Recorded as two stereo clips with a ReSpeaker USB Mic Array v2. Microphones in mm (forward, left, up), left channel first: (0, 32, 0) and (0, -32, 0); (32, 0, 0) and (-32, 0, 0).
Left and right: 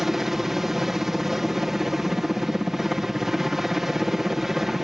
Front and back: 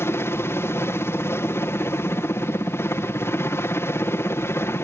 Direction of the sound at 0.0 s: 10° right.